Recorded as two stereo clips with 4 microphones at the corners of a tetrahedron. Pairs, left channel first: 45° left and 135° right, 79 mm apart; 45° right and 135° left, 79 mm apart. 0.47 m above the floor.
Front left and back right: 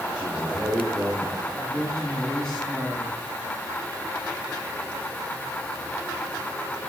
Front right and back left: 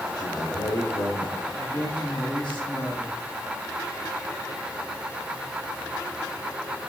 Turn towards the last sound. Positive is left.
turn(degrees=-35)